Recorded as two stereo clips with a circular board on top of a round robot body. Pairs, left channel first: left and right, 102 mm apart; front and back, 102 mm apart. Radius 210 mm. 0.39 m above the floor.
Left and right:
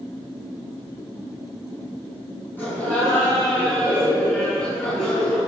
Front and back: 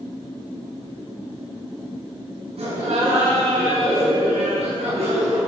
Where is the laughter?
160° left, 6.5 m; by 5.4 s 175° left, 8 m.